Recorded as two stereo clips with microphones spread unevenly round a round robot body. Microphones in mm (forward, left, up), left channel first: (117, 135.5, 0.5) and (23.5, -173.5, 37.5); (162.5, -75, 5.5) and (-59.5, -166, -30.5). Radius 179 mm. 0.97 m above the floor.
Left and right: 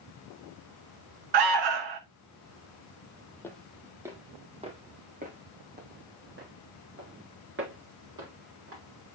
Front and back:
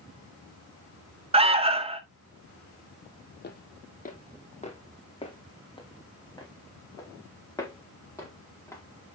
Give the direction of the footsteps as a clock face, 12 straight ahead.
12 o'clock.